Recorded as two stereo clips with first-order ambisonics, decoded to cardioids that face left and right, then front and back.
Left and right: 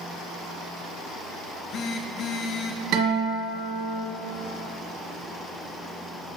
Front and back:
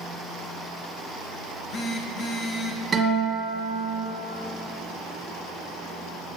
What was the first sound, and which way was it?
A phone buzzing, 50° left.